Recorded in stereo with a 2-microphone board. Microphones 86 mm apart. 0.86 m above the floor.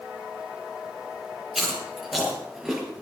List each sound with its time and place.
1.6 s chewing: 5° right (ahead or behind), 6 m